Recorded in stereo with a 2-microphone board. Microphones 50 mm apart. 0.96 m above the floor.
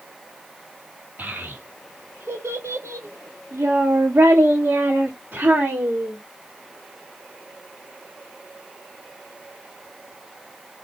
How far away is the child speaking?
About 1.5 m.